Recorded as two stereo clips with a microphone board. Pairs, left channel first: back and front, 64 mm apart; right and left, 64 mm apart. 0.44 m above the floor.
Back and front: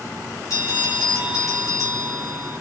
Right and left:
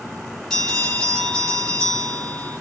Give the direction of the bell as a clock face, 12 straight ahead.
6 o'clock.